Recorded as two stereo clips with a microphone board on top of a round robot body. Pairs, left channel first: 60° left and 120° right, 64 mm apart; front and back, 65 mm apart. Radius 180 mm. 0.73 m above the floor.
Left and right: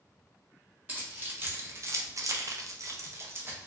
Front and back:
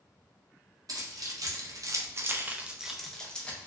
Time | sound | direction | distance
0.9 | keys jangling | 175° left | 1.1 m